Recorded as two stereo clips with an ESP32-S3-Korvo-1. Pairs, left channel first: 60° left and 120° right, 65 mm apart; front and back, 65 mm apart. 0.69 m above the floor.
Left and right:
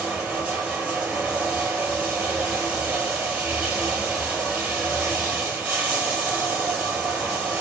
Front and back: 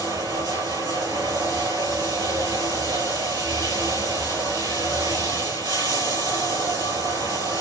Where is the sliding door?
I don't hear a sliding door.